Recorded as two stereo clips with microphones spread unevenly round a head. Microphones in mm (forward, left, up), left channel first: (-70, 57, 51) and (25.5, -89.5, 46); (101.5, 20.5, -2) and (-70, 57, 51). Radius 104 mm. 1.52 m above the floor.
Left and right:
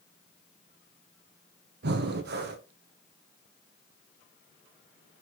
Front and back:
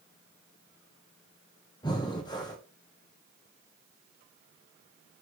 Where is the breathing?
85° right, 0.6 m.